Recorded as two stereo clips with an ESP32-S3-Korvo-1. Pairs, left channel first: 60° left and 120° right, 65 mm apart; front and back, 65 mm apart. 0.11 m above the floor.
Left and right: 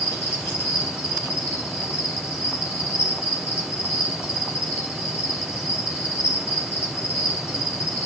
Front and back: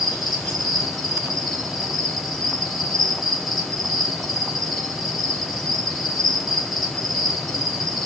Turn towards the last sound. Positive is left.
turn(degrees=-90)